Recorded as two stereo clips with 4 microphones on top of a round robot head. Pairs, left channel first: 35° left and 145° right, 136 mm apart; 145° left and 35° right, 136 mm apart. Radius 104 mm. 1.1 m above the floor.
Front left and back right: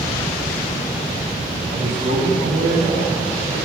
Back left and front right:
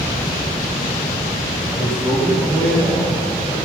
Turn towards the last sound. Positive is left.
turn(degrees=-130)